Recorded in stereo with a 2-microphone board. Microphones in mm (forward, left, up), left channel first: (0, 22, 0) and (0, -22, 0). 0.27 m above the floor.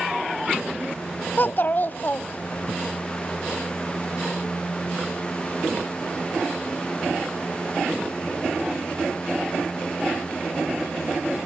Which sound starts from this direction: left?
A child speaking, at 1.4 s.